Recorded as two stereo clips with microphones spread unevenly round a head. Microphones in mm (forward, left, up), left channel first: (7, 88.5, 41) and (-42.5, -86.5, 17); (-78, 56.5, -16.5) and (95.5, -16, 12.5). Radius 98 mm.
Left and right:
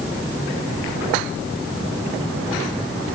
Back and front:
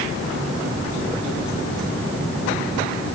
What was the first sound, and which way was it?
Only background noise.